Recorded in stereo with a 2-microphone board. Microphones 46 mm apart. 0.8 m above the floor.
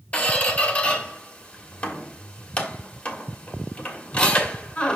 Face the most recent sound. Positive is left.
turn(degrees=35)  # may be behind; listen again after turning